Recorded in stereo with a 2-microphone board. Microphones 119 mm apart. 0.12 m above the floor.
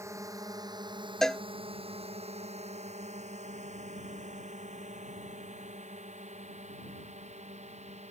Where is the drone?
25° right (ahead or behind); by 8.1 s 70° right (ahead or behind).